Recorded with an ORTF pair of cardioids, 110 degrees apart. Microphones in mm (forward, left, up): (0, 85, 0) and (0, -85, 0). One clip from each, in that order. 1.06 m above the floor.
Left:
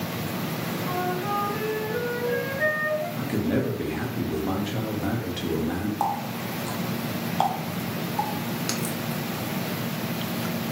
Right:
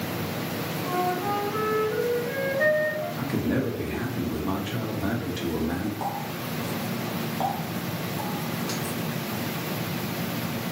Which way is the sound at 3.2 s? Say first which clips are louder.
Left 1 dB; 5° left.